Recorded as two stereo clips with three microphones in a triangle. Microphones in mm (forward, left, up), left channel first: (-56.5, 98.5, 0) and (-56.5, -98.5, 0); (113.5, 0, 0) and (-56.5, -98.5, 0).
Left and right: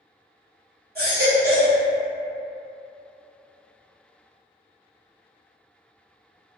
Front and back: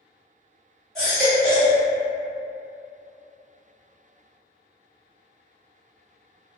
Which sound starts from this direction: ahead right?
A baby crying, at 0.9 s.